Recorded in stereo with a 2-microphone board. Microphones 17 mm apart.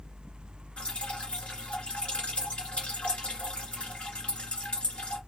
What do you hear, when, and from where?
0.8 s dripping: 75° left (ahead or behind), 1.7 m